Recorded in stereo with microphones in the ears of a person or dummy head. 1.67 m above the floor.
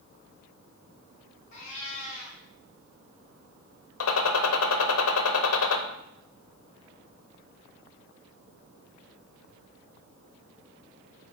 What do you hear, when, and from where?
1.5 s a cat meowing: 35° left (ahead or behind), 4 m
4.0 s a gunshot: 75° left (ahead or behind), 0.9 m